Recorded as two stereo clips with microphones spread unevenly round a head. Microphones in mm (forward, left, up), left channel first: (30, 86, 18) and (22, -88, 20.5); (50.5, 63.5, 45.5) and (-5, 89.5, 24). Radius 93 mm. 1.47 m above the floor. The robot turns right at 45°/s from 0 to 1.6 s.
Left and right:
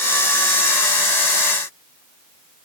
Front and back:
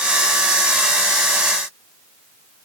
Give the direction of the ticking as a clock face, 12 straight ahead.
I don't hear ticking.